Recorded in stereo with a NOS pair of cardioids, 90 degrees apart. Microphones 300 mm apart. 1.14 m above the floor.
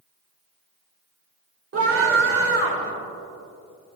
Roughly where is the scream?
Ahead right.